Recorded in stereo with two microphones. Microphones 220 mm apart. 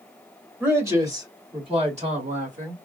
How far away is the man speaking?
About 1.7 m.